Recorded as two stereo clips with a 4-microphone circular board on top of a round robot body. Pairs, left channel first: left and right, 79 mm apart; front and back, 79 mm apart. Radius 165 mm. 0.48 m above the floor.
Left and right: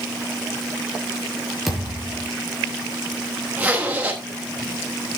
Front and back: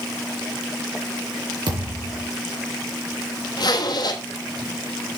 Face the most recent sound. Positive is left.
turn(degrees=-20)